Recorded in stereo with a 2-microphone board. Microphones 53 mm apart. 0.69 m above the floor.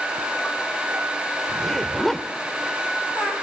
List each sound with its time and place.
1.5 s a zipper: 10° left (ahead or behind), 1.0 m